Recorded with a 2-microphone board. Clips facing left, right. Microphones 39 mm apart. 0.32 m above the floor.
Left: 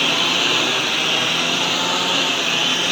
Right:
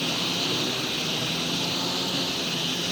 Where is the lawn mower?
65° left (ahead or behind); by 2.9 s 70° left (ahead or behind).